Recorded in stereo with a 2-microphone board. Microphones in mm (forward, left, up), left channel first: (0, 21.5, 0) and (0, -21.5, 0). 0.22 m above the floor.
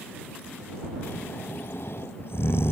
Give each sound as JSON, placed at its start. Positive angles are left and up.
{"t": 1.0, "sound": "snoring", "side_deg": 60}